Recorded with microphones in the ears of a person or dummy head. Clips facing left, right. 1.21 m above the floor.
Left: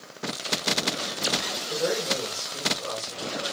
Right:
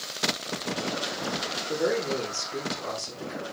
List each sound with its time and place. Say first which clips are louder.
1.7 s a man speaking: right 1 dB; 90° right, 2.5 m